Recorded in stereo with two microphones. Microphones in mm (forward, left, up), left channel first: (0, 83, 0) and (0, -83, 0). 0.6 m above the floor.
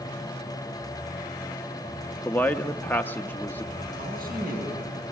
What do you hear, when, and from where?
2.2 s a man speaking: 10° left (ahead or behind), 0.7 m
4.0 s a man speaking: 60° right (ahead or behind), 6.5 m